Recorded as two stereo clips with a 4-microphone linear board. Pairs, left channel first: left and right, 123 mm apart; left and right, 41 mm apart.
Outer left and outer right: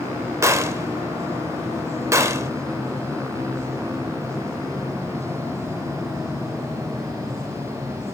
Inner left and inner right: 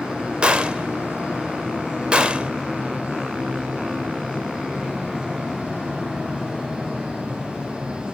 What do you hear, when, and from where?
0.4 s a gunshot: 25° right (ahead or behind), 0.7 m